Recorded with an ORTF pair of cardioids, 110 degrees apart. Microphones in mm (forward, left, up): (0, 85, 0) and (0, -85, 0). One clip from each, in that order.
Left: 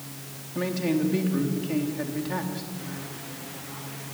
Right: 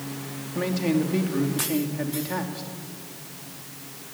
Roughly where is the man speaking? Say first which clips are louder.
Right 1 dB; ahead.